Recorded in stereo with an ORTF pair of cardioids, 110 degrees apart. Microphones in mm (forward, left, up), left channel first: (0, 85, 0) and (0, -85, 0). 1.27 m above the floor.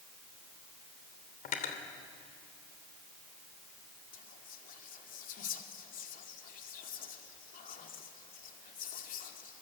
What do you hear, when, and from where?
1.4 s cutlery clinking: 55° left, 3 m
4.1 s whispering: 55° left, 2.5 m